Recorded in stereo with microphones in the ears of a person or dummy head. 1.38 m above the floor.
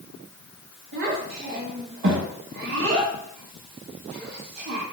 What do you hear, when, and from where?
0.9 s a child speaking: 55° right (ahead or behind), 1.0 m